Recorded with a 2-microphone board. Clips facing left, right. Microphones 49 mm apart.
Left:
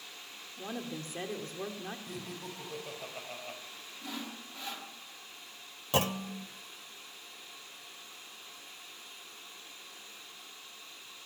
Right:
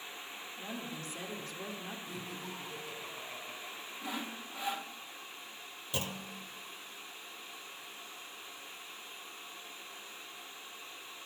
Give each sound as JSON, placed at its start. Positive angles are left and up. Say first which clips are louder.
{"t": 0.6, "sound": "a woman speaking", "louder": "left 4 dB", "side_deg": 45, "distance_m": 1.7}
{"t": 2.1, "sound": "laughter", "louder": "even", "side_deg": 65, "distance_m": 3.5}
{"t": 4.0, "sound": "sawing", "louder": "right 1 dB", "side_deg": -15, "distance_m": 1.0}
{"t": 5.9, "sound": "a clunk", "louder": "left 9 dB", "side_deg": 80, "distance_m": 0.6}